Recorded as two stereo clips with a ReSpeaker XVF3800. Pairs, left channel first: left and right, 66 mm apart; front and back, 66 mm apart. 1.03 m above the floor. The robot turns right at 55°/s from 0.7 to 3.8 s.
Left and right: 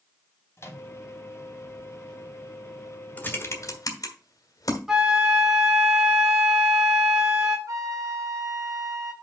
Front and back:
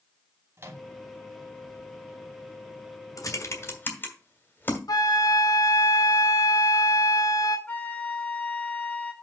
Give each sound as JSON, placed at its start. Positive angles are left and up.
{"t": 0.6, "sound": "a microwave", "azimuth_deg": 135, "distance_m": 1.5}
{"t": 3.2, "sound": "typing on a keyboard", "azimuth_deg": 25, "distance_m": 2.0}
{"t": 4.9, "sound": "a flute", "azimuth_deg": -10, "distance_m": 1.8}
{"t": 7.7, "sound": "a flute", "azimuth_deg": -65, "distance_m": 3.0}